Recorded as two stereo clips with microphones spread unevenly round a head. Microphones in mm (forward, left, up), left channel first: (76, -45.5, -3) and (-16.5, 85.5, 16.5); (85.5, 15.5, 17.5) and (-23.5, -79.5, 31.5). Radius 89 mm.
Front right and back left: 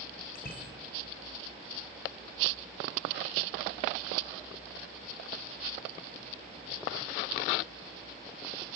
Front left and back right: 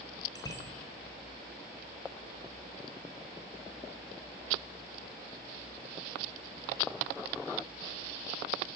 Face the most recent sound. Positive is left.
turn(degrees=-25)